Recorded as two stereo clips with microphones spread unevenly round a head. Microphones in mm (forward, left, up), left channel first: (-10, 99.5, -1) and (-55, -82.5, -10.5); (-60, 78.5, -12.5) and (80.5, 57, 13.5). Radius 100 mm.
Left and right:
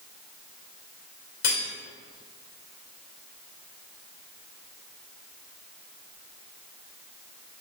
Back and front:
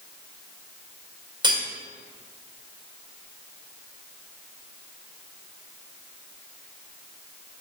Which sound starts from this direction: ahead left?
Cutlery clinking, at 1.4 s.